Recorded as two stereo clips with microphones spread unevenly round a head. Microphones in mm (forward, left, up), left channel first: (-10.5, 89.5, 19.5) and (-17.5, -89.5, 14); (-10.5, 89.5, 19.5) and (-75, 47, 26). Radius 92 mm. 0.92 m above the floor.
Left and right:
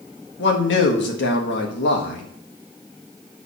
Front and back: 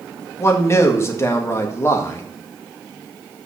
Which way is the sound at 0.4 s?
80° left.